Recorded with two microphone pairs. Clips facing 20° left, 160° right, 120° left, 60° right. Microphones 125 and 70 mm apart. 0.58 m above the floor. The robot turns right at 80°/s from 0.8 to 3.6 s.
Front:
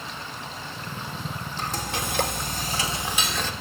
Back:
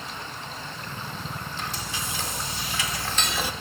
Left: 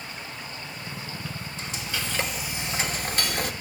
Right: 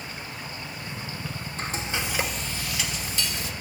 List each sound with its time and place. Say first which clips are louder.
1.6 s frying: front 7 dB, right 4 dB; 30° right, 1.4 m; by 3.5 s 125° left, 1.4 m